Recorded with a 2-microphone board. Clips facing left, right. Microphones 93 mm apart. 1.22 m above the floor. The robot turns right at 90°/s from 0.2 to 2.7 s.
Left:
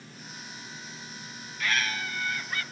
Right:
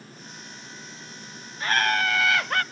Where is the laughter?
150° right, 0.7 m; by 2.6 s 55° right, 0.7 m.